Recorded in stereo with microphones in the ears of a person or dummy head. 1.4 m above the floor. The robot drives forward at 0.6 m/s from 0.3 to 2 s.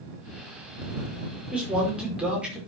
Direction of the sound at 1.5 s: 5° right (ahead or behind).